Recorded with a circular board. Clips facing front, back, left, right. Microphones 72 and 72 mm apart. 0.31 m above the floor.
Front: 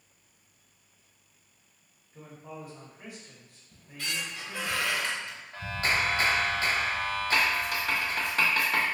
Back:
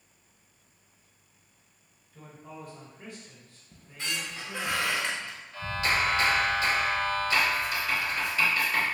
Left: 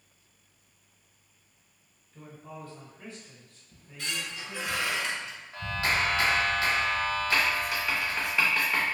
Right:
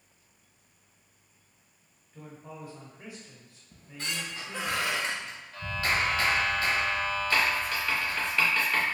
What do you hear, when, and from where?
2.1 s a man speaking: 40° right, 0.9 m
3.7 s a squeak: 125° right, 0.6 m
5.5 s a clap: 30° left, 1.4 m
7.3 s writing: 10° left, 1.0 m